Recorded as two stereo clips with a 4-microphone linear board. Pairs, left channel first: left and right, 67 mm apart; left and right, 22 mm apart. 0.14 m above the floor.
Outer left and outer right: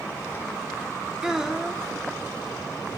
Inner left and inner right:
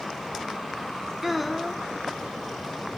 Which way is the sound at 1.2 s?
10° right (ahead or behind).